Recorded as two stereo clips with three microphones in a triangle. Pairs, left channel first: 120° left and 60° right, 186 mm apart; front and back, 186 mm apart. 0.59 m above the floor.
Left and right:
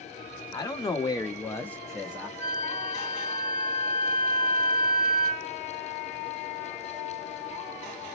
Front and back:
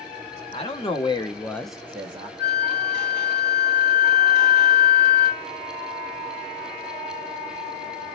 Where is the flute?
100° right, 1.6 m.